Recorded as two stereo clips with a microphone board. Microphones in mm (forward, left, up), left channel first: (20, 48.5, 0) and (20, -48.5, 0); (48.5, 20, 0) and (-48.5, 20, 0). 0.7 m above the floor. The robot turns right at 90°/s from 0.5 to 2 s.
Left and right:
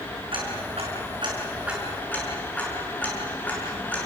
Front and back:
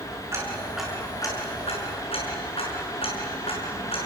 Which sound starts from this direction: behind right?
Ticking, at 0.3 s.